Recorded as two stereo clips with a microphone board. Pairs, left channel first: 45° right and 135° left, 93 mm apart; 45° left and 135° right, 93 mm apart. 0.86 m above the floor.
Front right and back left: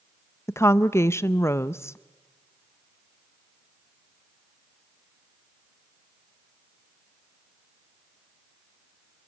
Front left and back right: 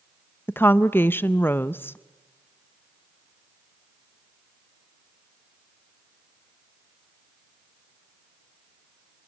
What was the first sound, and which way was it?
A woman speaking, 5° right.